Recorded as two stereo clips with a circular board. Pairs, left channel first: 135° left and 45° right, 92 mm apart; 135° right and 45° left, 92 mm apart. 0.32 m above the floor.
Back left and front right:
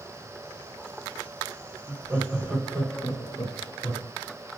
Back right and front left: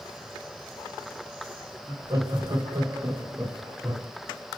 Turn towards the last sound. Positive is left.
turn(degrees=125)